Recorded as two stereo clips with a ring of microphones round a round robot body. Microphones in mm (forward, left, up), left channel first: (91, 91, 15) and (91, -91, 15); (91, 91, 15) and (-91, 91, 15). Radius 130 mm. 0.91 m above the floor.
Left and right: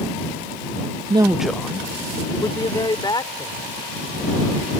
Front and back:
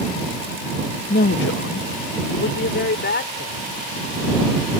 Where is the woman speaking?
35° right; by 3.7 s 25° left.